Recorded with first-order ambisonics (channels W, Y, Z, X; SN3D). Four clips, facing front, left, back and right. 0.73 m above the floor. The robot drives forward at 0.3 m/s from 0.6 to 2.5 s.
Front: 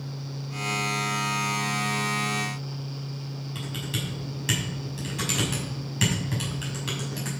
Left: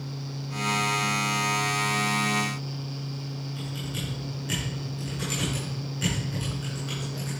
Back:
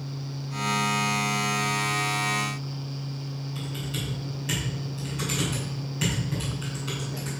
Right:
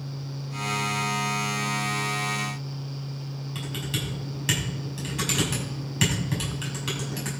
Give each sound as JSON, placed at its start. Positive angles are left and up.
{"t": 3.5, "sound": "typing on a keyboard", "azimuth_deg": -60, "distance_m": 5.5}